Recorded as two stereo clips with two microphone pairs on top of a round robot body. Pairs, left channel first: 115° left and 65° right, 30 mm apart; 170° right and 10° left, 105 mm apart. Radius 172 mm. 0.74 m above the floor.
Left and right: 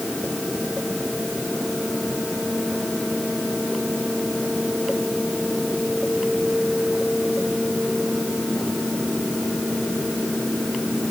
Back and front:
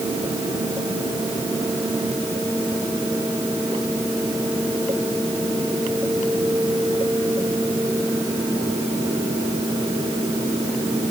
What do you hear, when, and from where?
Only background noise.